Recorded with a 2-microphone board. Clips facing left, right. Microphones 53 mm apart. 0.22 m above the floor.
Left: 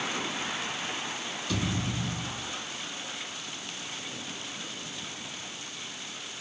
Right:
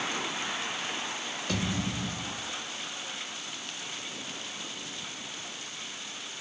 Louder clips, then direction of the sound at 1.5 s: Even; 70° right (ahead or behind).